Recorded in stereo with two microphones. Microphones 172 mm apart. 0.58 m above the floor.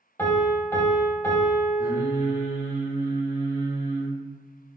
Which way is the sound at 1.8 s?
20° right (ahead or behind).